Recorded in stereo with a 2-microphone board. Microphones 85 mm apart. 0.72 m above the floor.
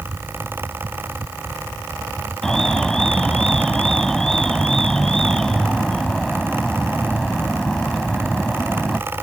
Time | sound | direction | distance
2.4 | an alarm | 5° left (ahead or behind) | ?